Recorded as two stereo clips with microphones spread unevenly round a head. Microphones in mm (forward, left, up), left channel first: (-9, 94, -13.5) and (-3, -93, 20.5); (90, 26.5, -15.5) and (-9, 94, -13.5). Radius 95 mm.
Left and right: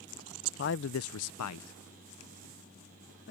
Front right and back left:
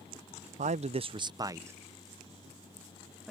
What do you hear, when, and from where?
0.6 s a man speaking: 130° left; by 3.3 s 55° left